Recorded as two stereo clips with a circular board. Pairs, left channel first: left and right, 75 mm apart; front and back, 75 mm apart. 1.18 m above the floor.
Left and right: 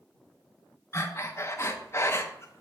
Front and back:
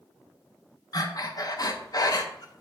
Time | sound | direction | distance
0.9 | breathing | 35° left | 0.6 m